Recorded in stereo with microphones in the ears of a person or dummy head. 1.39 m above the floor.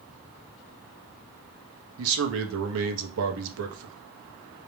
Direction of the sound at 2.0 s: 75° right (ahead or behind).